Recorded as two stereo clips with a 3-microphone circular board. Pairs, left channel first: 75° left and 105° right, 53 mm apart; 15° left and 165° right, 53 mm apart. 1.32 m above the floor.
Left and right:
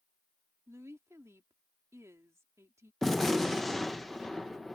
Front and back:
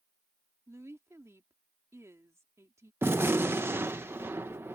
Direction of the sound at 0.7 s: 135° right.